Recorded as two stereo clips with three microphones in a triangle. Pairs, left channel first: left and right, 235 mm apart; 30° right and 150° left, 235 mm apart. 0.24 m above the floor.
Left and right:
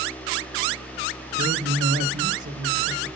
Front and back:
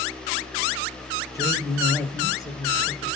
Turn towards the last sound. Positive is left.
turn(degrees=-105)